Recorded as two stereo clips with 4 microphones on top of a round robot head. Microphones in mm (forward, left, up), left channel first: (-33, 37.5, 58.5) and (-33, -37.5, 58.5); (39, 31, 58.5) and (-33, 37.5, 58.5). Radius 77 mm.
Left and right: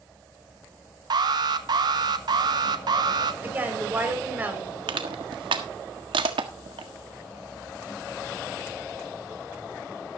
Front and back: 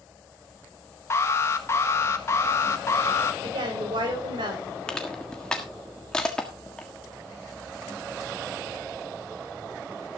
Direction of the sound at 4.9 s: 85° right.